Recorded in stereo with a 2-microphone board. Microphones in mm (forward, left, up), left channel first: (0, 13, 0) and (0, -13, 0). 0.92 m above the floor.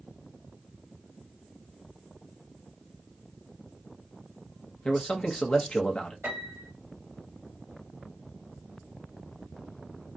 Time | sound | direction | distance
4.8 | a man speaking | 35° left (ahead or behind) | 0.7 m
6.2 | a piano | 70° right (ahead or behind) | 1.2 m